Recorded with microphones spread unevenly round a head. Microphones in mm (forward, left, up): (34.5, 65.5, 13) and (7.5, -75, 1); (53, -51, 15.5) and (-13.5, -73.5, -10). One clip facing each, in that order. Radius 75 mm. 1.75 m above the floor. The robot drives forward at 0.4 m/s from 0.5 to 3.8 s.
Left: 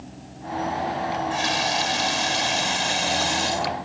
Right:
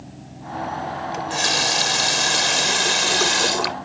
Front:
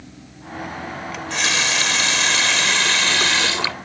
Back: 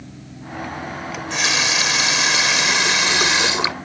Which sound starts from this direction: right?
A running tap, at 1.1 s.